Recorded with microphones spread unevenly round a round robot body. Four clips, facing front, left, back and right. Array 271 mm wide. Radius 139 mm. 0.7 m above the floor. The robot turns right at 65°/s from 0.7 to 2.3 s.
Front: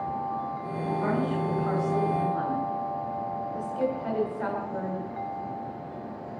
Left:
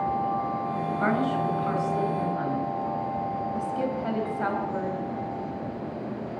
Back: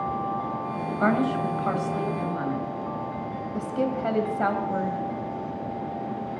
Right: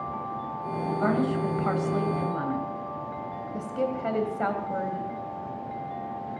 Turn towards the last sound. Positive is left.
turn(degrees=-160)